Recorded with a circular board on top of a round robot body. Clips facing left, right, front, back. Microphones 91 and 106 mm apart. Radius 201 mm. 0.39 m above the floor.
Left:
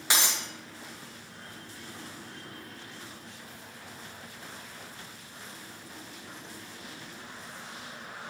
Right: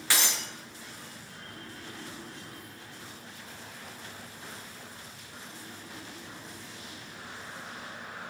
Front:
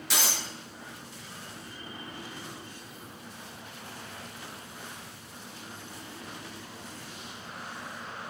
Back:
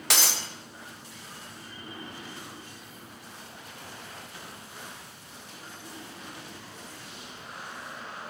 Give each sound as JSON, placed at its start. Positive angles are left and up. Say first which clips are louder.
{"t": 0.1, "sound": "breaking glass", "louder": "left 1 dB, back 2 dB", "azimuth_deg": 160, "distance_m": 1.4}